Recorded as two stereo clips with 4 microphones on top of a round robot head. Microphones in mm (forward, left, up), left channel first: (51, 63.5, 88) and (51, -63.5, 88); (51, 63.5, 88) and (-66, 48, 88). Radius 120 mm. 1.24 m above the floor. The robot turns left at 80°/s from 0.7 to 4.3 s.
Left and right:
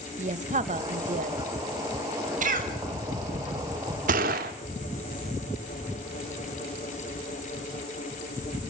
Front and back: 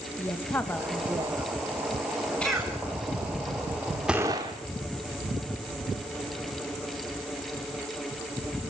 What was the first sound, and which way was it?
A woman speaking, 65° right.